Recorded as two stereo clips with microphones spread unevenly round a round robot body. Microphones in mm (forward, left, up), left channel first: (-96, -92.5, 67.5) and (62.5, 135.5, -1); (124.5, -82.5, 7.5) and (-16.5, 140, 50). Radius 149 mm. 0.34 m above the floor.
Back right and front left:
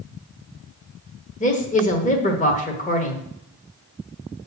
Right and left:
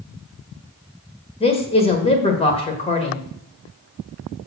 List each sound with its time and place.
1.4 s a man speaking: 60° right, 1.2 m